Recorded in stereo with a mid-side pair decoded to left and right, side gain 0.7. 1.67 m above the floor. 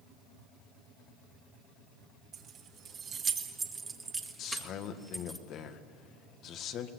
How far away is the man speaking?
About 1.9 m.